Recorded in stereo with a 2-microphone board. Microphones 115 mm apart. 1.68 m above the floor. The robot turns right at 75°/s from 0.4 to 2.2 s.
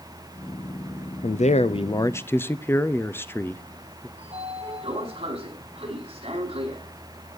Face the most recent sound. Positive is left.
turn(degrees=-55)  # may be behind; listen again after turning